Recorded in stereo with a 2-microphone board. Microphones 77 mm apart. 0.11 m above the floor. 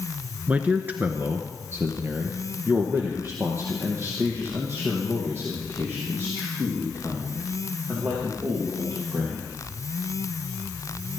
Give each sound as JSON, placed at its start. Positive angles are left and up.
{"t": 0.5, "sound": "a man speaking", "side_deg": -20, "distance_m": 1.1}